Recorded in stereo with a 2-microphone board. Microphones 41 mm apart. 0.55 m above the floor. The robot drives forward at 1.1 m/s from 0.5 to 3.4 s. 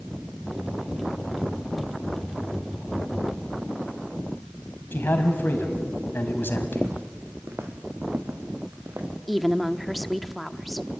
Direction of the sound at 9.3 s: Centre (ahead or behind).